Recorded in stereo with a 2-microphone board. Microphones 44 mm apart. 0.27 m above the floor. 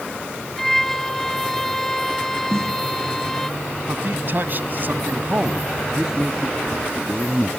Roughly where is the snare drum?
Right.